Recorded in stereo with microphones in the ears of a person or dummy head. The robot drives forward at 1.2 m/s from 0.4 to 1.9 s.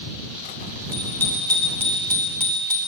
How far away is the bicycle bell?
About 3 m.